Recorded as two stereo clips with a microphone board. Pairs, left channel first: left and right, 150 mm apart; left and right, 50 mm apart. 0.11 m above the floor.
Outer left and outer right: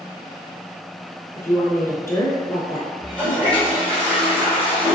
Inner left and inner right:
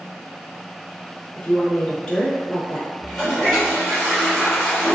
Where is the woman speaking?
20° left (ahead or behind), 1.1 m.